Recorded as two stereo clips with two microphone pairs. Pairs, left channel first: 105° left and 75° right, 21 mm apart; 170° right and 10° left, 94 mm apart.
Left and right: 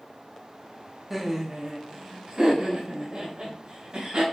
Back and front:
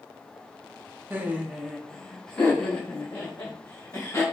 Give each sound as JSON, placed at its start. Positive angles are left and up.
{"t": 1.1, "sound": "laughter", "azimuth_deg": -5, "distance_m": 0.7}